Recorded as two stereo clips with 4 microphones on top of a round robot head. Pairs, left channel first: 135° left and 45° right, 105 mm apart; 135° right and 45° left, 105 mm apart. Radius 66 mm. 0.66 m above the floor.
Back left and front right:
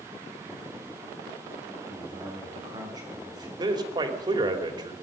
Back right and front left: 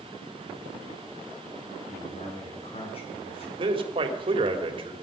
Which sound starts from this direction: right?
A man speaking, at 1.9 s.